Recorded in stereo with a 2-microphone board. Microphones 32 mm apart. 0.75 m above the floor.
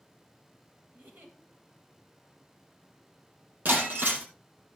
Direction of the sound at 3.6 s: 65° right (ahead or behind).